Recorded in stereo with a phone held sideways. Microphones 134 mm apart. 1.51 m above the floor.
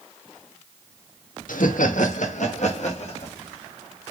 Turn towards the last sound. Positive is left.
turn(degrees=55)  # may be behind; listen again after turning